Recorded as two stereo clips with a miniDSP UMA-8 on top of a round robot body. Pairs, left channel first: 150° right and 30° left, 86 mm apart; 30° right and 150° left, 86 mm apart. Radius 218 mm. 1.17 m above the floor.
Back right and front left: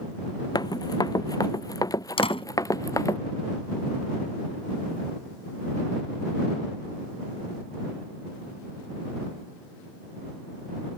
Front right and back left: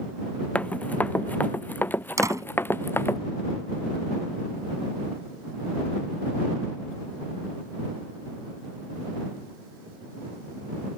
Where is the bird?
No bird in this recording.